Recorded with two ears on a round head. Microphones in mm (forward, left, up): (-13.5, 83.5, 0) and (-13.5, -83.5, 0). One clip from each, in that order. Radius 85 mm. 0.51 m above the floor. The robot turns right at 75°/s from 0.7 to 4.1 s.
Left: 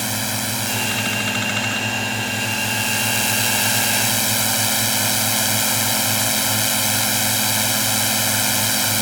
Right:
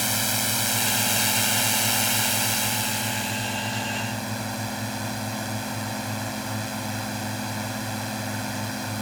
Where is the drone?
165° right; by 9.0 s 90° left.